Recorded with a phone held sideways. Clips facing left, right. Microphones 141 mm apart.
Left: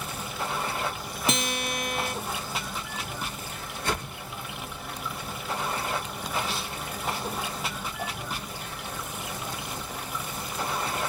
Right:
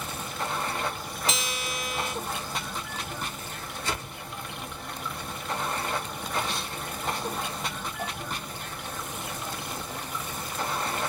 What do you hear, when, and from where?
0.0 s running water: 5° left (ahead or behind), 0.8 m
1.3 s a guitar: 55° left (ahead or behind), 0.6 m
3.8 s a whoosh: 55° left (ahead or behind), 2.0 m